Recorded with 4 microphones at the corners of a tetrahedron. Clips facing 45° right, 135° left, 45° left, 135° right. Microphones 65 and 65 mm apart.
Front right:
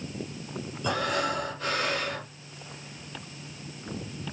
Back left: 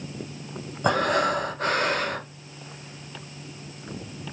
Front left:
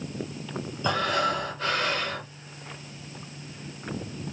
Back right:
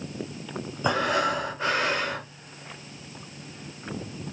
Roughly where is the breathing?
Behind.